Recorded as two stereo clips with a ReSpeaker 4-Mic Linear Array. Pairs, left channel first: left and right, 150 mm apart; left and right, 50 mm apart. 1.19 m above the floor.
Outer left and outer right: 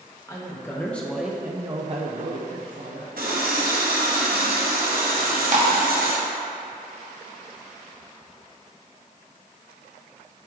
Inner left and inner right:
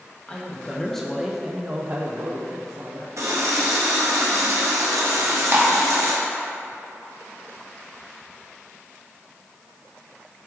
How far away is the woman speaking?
About 1.0 m.